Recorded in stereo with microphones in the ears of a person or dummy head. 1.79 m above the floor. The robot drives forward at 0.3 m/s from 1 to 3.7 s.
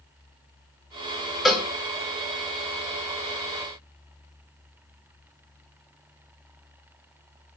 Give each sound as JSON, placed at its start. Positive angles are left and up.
{"t": 1.4, "sound": "a cowbell", "side_deg": 5, "distance_m": 0.6}